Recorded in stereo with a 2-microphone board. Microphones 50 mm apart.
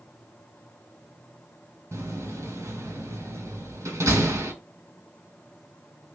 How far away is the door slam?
About 4 m.